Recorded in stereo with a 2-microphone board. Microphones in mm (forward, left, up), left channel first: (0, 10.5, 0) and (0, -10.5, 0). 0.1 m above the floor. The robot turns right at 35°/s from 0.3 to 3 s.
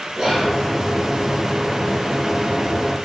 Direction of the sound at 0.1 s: 45° right (ahead or behind).